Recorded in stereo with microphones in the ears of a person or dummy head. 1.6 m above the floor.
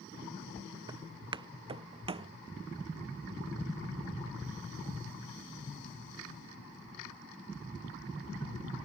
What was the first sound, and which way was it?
Footsteps, 25° right (ahead or behind).